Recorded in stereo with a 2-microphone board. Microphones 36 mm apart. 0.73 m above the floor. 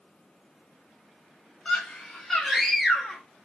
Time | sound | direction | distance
1.6 | a scream | 20° left (ahead or behind) | 1.1 m